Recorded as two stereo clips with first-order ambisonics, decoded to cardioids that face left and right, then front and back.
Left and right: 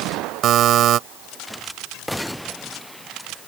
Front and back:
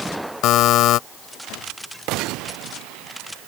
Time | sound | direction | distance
0.4 | a buzzer | 40° right | ?